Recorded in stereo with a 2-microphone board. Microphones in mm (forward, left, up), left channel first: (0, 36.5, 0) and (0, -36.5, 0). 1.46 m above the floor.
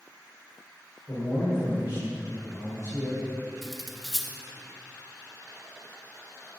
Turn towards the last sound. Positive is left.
turn(degrees=0)  # may be behind; listen again after turning